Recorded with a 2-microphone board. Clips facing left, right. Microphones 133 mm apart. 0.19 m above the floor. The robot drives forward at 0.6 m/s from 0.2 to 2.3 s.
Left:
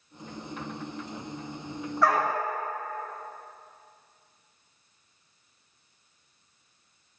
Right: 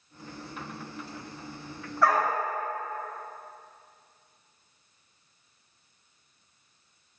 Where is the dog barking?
Centre (ahead or behind), 4 m.